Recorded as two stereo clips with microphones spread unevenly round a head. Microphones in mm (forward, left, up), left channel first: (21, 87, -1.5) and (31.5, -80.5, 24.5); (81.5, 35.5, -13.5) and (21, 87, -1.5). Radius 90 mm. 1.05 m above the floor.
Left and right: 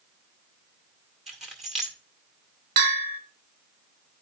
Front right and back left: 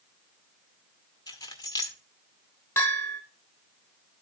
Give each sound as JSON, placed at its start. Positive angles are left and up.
{"t": 1.3, "sound": "keys jangling", "azimuth_deg": 0, "distance_m": 1.8}
{"t": 2.8, "sound": "a bell", "azimuth_deg": -115, "distance_m": 1.3}